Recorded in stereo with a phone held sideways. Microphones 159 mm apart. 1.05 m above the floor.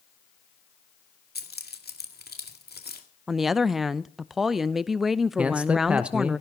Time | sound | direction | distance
1.4 | keys jangling | 85° left | 1.9 m
3.3 | a woman speaking | centre (ahead or behind) | 0.6 m
5.4 | a man speaking | 5° right (ahead or behind) | 1.1 m